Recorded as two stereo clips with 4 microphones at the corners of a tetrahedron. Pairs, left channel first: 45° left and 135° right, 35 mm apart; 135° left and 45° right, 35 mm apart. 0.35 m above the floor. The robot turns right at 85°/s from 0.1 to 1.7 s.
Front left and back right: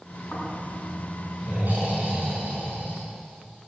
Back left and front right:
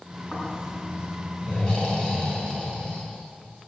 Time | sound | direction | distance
0.3 | snoring | 80° left | 4 m